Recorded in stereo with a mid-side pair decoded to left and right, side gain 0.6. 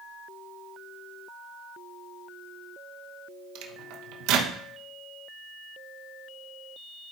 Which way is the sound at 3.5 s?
70° right.